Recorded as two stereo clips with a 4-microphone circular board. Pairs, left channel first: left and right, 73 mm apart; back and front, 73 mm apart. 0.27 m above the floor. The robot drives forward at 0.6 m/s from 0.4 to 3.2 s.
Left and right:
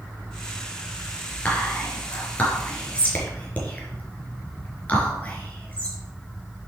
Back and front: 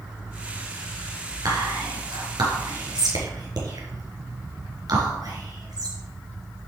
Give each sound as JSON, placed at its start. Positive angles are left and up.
{"t": 1.4, "sound": "whispering", "azimuth_deg": 20, "distance_m": 5.0}